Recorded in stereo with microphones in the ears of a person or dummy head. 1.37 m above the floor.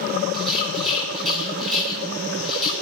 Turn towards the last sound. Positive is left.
turn(degrees=5)  # may be behind; listen again after turning